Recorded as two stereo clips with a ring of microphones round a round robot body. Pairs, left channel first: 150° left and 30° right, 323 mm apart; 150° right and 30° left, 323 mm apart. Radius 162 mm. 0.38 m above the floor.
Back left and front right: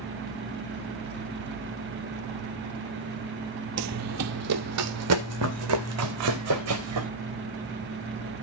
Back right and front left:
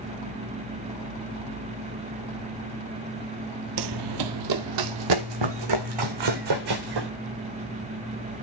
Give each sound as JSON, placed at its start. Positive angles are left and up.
{"t": 3.8, "sound": "running footsteps", "azimuth_deg": 5, "distance_m": 0.6}